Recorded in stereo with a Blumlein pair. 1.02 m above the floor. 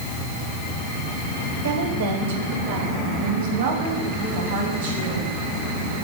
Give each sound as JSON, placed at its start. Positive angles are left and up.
{"t": 1.6, "sound": "a woman speaking", "azimuth_deg": -60, "distance_m": 3.5}